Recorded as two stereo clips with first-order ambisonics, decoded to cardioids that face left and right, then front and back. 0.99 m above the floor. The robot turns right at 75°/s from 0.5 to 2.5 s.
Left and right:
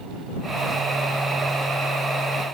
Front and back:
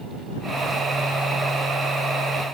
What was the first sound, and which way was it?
Only background noise.